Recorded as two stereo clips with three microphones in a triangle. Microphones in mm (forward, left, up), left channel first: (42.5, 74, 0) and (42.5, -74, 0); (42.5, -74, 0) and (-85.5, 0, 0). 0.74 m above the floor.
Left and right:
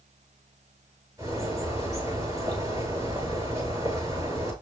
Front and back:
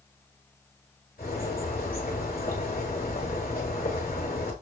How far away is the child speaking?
I don't hear a child speaking.